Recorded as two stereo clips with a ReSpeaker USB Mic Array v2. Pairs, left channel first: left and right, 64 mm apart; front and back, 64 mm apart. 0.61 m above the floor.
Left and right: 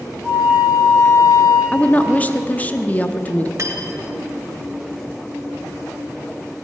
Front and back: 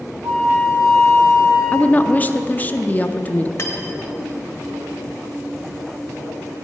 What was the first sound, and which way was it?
A flute, straight behind.